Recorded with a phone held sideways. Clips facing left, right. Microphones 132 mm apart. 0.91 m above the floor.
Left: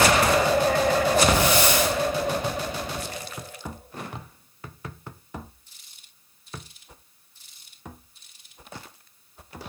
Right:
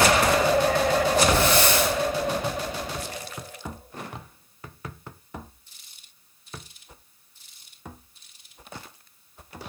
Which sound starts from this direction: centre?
A hiss, at 1.3 s.